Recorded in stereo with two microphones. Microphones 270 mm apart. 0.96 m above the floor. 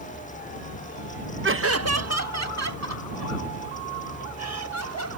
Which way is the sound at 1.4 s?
45° right (ahead or behind).